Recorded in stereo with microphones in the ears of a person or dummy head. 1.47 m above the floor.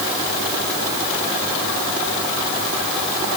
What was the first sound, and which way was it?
Only background noise.